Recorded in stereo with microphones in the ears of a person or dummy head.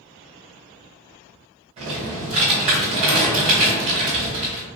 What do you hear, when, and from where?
1.8 s typing on a keyboard: 30° right (ahead or behind), 1.8 m